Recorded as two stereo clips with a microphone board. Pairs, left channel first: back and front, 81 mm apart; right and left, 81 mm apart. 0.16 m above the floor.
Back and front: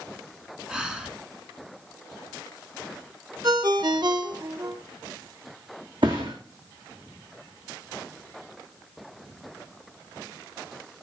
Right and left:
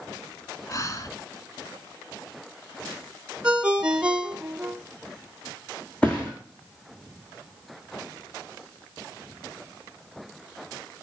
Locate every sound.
0.7 s breathing: 80° right, 1.9 m
3.4 s a ringtone: 15° left, 1.2 m
6.0 s a thud: 15° right, 4.5 m